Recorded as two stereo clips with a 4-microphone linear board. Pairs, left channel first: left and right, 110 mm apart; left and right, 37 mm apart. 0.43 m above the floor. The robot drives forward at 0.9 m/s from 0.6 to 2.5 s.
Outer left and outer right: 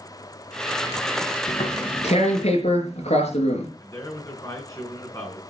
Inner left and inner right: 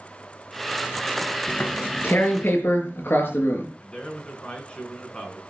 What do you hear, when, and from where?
1.5 s tearing paper: 85° left, 4.5 m; by 3.7 s 75° left (ahead or behind), 4.5 m
3.8 s a man speaking: 30° left (ahead or behind), 5.5 m